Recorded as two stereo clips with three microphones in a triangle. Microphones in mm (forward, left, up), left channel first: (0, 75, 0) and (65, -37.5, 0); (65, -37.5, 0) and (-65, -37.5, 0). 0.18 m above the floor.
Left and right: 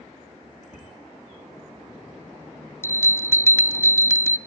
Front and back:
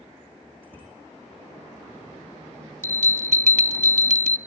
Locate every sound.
0.6 s a bicycle bell: 105° left, 8 m
2.8 s a bell: 170° right, 0.5 m